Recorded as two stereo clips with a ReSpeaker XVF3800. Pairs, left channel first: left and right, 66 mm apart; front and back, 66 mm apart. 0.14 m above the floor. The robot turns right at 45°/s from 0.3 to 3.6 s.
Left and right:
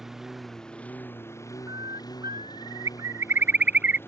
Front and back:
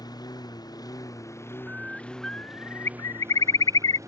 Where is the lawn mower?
5° right; by 4.1 s 145° left.